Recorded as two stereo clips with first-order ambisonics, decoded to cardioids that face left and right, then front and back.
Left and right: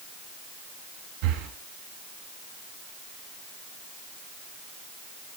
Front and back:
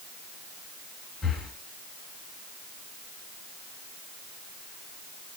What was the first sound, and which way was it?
Breathing, 80° right.